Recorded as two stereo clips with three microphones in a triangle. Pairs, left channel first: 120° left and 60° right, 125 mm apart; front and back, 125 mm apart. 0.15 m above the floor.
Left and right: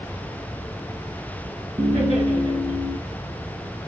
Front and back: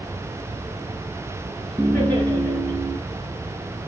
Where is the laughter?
60° right, 2.5 m; by 3.0 s 85° right, 2.5 m.